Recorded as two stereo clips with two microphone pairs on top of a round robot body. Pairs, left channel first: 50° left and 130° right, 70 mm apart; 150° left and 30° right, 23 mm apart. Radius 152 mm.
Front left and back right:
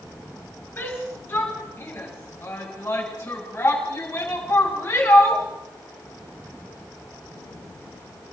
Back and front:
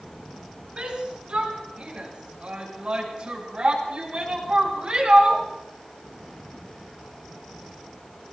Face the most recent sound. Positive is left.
turn(degrees=5)